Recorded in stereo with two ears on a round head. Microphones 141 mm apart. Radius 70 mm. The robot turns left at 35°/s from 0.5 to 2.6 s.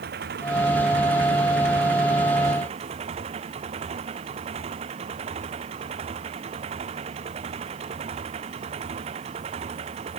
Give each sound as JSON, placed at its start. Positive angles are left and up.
{"t": 0.0, "sound": "an engine running", "azimuth_deg": -65}